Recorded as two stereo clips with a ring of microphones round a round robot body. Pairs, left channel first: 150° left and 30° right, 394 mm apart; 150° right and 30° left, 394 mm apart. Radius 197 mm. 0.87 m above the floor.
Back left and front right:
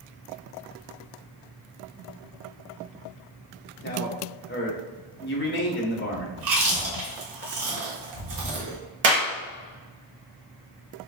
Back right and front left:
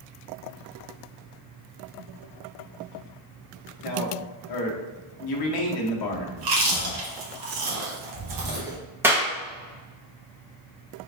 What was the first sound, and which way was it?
A man speaking, 155° right.